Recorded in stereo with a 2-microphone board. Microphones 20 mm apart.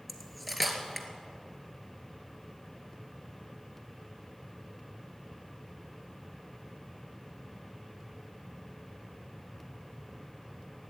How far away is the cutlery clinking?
About 1.6 m.